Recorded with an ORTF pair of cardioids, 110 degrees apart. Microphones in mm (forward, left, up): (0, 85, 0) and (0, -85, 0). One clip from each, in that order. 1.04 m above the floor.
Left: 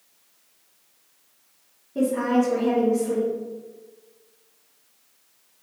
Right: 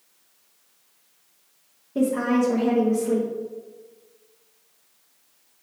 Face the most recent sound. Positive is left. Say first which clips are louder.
# even
turn(degrees=-25)